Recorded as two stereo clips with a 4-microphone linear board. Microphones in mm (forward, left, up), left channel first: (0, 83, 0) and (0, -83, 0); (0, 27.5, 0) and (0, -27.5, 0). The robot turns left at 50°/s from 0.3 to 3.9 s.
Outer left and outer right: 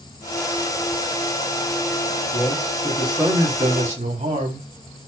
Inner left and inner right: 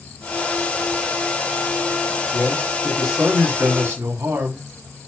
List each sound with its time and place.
2.3 s a man speaking: 35° left, 4 m; by 4.7 s 45° right, 4 m